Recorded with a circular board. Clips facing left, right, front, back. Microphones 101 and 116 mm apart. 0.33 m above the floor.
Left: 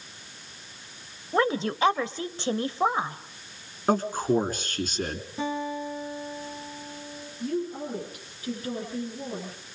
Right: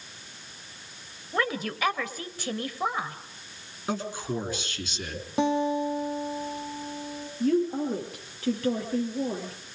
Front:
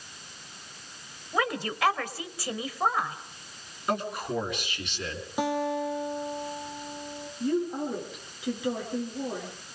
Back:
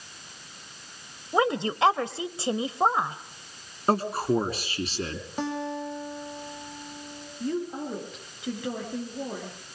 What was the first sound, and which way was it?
A woman speaking, 135° left.